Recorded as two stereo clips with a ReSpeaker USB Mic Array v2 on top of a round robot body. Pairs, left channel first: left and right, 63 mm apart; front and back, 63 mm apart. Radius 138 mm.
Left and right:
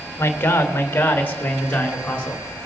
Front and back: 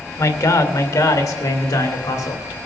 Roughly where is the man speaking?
Ahead left.